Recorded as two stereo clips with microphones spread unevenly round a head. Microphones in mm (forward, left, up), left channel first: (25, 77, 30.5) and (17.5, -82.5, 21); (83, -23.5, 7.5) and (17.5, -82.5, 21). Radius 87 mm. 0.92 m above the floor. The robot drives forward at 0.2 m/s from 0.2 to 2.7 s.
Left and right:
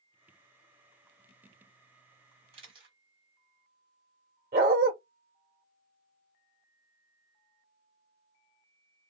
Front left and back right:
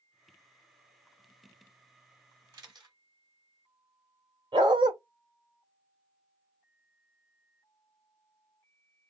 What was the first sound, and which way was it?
A camera shutter, 150° right.